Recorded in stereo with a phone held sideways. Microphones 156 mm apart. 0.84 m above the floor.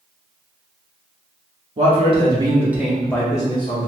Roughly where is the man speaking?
Right.